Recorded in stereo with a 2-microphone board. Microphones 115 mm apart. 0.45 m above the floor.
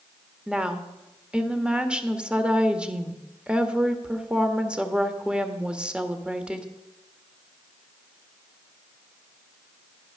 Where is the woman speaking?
10° right (ahead or behind), 1.4 m.